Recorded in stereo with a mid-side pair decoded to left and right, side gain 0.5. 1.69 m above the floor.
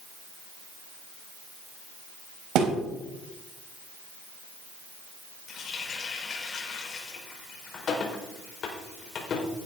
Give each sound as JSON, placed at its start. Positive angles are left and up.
{"t": 2.5, "sound": "a thud", "azimuth_deg": -70, "distance_m": 4.0}
{"t": 5.5, "sound": "a running tap", "azimuth_deg": 50, "distance_m": 4.5}